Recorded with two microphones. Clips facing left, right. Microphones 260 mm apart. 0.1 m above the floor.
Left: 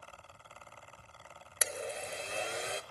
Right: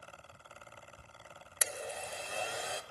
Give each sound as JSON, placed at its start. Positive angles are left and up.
{"t": 1.6, "sound": "a blender", "side_deg": 25, "distance_m": 0.6}